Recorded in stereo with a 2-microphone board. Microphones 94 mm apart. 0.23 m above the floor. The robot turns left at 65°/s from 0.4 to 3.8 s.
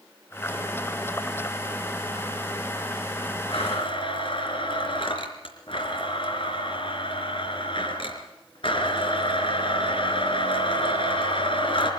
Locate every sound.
3.5 s a blender: 65° left (ahead or behind), 4 m